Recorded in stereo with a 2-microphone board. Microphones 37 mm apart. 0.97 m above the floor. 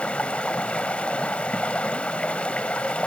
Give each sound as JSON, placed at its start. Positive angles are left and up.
{"t": 0.0, "sound": "running water", "side_deg": 30, "distance_m": 0.9}